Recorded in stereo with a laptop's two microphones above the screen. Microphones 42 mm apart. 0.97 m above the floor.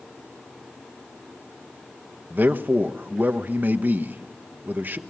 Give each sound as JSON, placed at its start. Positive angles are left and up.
{"t": 2.3, "sound": "a man speaking", "side_deg": -45, "distance_m": 1.1}